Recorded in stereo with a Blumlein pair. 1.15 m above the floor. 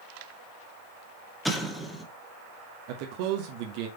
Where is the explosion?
Straight ahead, 1.5 m.